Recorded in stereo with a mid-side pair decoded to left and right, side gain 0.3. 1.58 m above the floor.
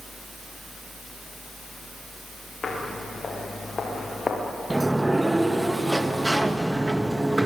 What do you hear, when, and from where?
2.6 s footsteps: 50° left, 9 m; by 4.4 s 40° left, 7.5 m
4.7 s a sliding door: 15° right, 1.7 m